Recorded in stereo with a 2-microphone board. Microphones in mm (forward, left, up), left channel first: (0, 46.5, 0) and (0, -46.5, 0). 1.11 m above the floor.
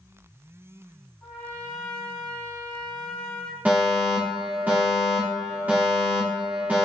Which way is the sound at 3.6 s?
20° right (ahead or behind).